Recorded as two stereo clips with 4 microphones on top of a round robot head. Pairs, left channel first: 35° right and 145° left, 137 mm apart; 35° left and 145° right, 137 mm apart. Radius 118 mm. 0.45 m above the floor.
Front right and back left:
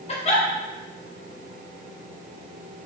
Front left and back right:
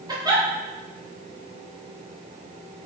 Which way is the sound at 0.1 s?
80° right.